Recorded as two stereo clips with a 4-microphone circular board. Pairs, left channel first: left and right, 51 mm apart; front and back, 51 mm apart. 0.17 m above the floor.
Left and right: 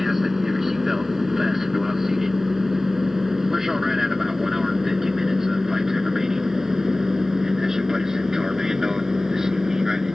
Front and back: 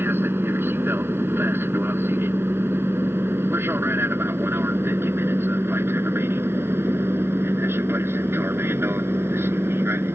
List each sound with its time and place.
0.0 s an aircraft: 175° right; by 10.2 s 170° right